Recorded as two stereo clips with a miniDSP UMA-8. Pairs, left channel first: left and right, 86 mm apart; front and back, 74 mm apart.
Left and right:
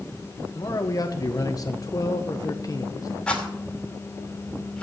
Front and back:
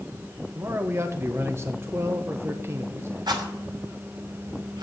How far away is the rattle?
About 2.5 m.